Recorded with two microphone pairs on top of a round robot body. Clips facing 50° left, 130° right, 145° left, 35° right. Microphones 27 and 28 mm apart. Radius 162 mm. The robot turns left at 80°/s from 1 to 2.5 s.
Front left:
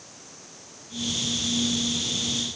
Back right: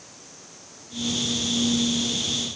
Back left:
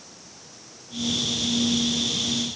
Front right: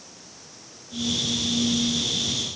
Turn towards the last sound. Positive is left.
No sound to turn to.